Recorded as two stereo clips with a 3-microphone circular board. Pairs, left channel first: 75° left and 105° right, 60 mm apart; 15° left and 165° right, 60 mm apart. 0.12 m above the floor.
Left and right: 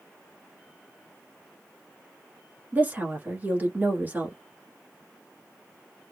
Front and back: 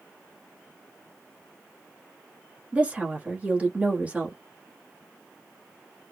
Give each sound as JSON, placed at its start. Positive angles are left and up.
{"t": 2.7, "sound": "a woman speaking", "azimuth_deg": -120, "distance_m": 1.2}